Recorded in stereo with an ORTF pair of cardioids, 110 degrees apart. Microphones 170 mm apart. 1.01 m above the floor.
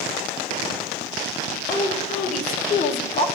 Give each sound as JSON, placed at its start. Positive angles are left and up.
{"t": 1.7, "sound": "a woman speaking", "azimuth_deg": 55, "distance_m": 4.0}